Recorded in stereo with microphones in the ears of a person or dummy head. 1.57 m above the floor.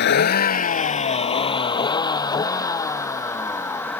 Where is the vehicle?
65° left (ahead or behind); by 4.0 s 10° left (ahead or behind).